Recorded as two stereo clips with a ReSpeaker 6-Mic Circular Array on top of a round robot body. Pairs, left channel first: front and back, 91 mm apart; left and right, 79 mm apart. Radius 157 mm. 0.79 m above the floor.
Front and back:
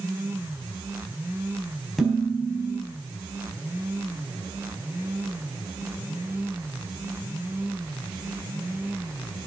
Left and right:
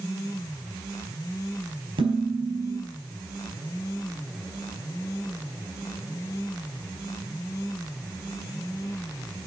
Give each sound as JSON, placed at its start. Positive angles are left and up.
{"t": 2.0, "sound": "dishes clattering", "azimuth_deg": -90, "distance_m": 4.5}